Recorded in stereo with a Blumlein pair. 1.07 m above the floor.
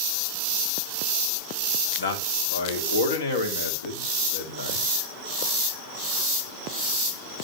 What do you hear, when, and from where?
2.0 s a man speaking: 60° left, 2 m